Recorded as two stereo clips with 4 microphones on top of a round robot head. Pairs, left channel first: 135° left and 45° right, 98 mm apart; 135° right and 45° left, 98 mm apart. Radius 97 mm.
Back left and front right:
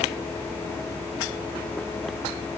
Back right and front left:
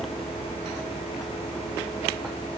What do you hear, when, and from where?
Only background noise.